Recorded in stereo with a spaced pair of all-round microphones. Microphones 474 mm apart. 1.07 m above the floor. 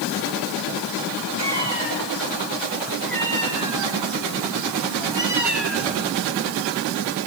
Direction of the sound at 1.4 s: 60° right (ahead or behind).